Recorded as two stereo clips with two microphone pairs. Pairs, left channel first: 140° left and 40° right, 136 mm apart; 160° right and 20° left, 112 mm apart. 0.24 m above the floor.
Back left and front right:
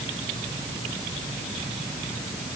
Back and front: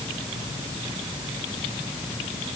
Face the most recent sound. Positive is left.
No sound to turn to.